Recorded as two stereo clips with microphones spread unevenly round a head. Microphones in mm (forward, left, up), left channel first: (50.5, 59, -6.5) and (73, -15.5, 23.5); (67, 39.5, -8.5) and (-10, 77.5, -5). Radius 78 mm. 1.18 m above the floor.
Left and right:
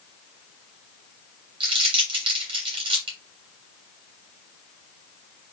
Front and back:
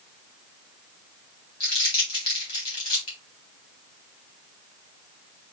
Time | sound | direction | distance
1.6 | crumpling | 65° right | 2.5 m